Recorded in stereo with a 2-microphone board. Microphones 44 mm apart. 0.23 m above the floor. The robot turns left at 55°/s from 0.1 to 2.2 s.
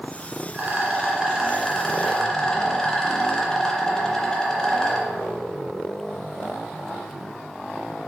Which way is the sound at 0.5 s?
110° right.